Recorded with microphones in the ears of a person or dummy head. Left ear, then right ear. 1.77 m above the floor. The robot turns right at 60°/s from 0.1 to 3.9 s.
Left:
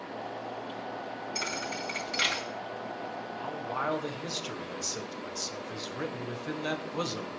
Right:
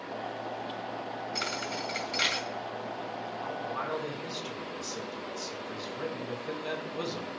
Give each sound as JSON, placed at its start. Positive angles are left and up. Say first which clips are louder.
{"t": 1.4, "sound": "a thud", "louder": "even", "side_deg": -25, "distance_m": 1.9}
{"t": 3.4, "sound": "a man speaking", "louder": "left 3 dB", "azimuth_deg": 45, "distance_m": 1.8}